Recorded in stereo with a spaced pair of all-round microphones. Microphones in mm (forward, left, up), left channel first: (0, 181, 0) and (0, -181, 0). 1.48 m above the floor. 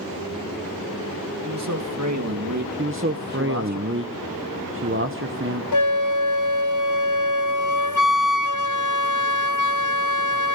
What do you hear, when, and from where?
1.4 s a man speaking: 50° right (ahead or behind), 2 m
2.8 s a man speaking: 35° right (ahead or behind), 0.9 m
5.7 s a flute: 55° left (ahead or behind), 0.6 m